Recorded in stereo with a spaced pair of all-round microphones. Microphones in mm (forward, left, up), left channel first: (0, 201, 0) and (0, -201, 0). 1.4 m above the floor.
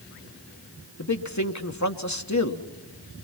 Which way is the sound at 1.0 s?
45° left (ahead or behind).